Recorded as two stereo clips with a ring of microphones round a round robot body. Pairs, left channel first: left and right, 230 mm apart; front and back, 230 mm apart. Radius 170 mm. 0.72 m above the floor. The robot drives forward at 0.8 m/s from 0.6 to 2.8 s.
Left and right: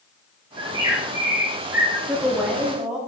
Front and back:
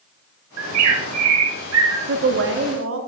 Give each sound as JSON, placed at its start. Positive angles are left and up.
{"t": 0.6, "sound": "a bird", "azimuth_deg": -165, "distance_m": 0.9}
{"t": 2.1, "sound": "a woman speaking", "azimuth_deg": -175, "distance_m": 1.0}